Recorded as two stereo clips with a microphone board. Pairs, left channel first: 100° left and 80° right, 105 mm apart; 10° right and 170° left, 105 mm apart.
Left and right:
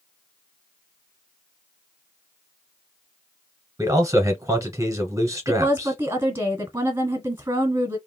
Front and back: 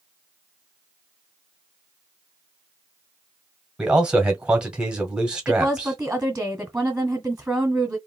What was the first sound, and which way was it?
A man speaking, 115° right.